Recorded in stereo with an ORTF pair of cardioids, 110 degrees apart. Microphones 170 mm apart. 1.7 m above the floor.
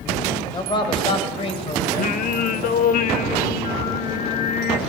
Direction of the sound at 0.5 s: 25° left.